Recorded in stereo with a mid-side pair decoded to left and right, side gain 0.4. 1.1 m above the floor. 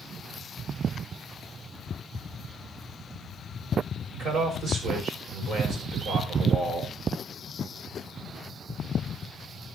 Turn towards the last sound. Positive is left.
turn(degrees=-60)